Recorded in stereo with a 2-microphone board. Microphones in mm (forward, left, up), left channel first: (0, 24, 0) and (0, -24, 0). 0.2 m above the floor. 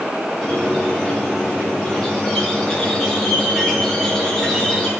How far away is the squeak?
About 2.5 m.